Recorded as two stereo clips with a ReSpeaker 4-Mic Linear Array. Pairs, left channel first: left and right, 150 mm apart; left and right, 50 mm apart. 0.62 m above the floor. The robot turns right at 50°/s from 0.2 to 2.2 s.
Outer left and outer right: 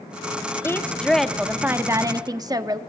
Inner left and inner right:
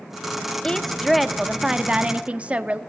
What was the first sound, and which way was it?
A woman speaking, 150° left.